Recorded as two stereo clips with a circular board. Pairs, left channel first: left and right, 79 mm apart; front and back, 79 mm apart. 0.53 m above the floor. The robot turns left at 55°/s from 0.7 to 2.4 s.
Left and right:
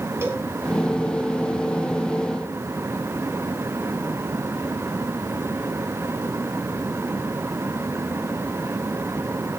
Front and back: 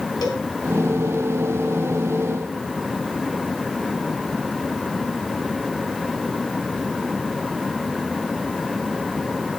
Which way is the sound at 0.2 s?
35° right.